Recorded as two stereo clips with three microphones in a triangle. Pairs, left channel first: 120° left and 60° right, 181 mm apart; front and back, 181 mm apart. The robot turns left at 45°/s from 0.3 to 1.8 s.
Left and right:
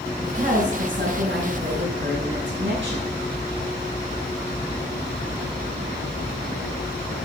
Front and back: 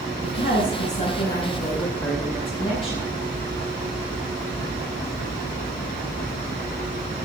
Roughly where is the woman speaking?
Ahead.